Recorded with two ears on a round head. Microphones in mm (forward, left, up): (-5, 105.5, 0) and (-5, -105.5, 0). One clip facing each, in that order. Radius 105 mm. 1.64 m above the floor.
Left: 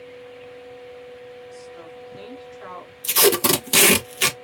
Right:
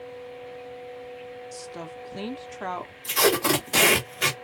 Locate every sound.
1.5 s a woman speaking: 60° right (ahead or behind), 1.1 m
3.0 s tape being pulled: 50° left (ahead or behind), 1.2 m